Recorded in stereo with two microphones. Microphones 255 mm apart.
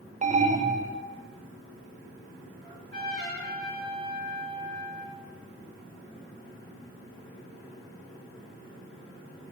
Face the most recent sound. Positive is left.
turn(degrees=-45)  # may be behind; listen again after turning